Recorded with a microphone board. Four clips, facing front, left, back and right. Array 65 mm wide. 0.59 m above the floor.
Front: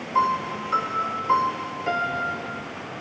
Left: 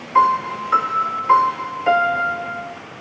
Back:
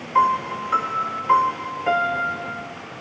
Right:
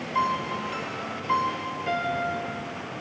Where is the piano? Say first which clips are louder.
Left 11 dB, back 4 dB; 100° left, 0.7 m.